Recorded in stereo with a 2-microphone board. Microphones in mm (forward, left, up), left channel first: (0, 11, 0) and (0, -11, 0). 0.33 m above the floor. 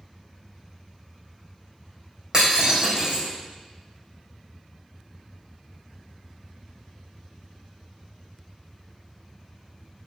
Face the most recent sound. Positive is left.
turn(degrees=-40)  # may be behind; listen again after turning